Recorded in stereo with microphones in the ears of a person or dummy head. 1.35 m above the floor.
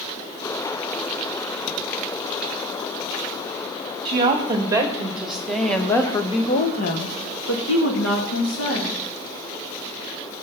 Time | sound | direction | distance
4.0 | a woman speaking | 25° right (ahead or behind) | 2.5 m